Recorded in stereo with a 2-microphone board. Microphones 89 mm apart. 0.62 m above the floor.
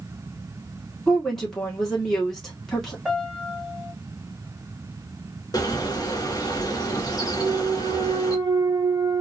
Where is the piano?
5° right (ahead or behind), 2 m.